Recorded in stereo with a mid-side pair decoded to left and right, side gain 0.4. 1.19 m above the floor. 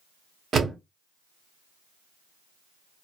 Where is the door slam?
60° right, 0.9 m.